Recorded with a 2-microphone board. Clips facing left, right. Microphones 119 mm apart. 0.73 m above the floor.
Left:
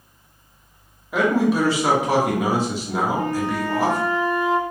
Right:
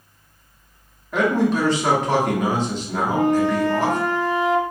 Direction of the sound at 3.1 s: 80° right.